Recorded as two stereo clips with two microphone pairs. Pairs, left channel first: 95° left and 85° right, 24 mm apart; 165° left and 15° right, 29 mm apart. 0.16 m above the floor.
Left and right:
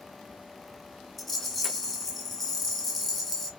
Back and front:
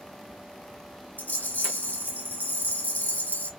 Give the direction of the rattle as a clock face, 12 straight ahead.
6 o'clock.